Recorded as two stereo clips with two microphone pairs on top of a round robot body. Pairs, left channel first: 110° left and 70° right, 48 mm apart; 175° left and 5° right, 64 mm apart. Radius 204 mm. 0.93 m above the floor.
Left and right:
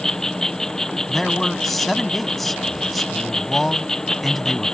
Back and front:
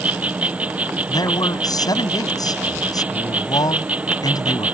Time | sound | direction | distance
0.0 | an insect | 40° left | ?
1.1 | a man speaking | 165° right | ?